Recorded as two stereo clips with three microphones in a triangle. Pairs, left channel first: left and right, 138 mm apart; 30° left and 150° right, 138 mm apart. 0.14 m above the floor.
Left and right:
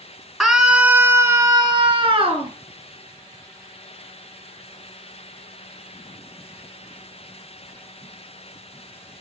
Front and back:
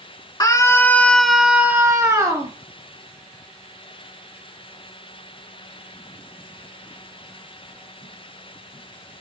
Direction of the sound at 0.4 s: Straight ahead.